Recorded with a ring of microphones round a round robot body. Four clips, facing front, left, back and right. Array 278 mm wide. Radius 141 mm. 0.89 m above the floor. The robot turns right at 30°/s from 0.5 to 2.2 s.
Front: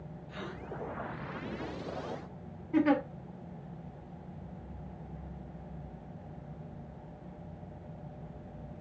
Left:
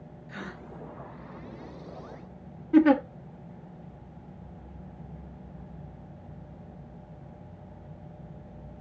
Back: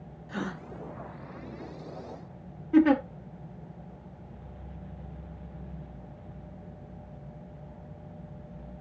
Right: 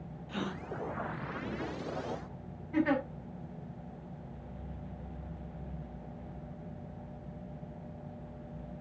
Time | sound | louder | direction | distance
0.3 | a gasp | right 3 dB, back 8 dB | 160° right | 0.7 m
2.7 | a giggle | left 10 dB, back 6 dB | 125° left | 1.6 m